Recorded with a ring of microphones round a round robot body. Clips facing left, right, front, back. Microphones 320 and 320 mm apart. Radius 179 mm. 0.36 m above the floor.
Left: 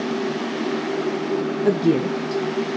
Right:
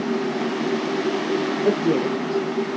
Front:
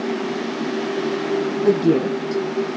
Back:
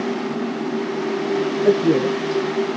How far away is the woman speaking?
About 1.2 m.